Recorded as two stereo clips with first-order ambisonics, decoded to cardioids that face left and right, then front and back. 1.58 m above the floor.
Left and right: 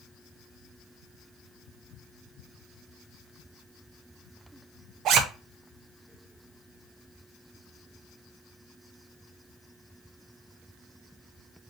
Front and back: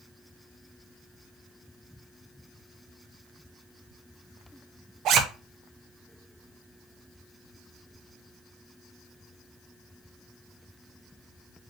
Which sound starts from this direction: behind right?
A zipper, at 5.0 s.